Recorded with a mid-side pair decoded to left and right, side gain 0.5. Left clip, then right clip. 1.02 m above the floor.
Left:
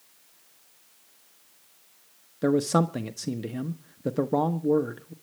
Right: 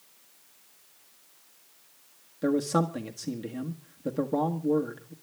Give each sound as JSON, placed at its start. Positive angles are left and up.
{"t": 2.4, "sound": "a man speaking", "azimuth_deg": 30, "distance_m": 1.1}